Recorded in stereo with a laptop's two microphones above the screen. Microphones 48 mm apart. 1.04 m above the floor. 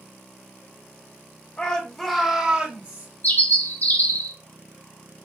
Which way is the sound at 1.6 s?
30° left (ahead or behind).